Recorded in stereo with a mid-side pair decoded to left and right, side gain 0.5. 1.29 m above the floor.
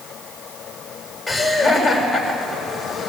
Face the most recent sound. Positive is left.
turn(degrees=0)